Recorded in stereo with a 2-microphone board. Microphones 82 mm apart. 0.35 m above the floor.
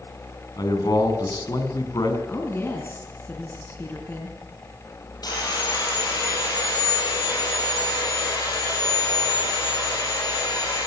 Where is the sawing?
55° left (ahead or behind), 7.5 m.